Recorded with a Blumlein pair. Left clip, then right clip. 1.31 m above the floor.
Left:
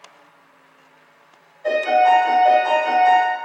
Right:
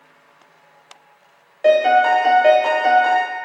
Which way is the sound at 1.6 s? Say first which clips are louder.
Right 2 dB; 50° right.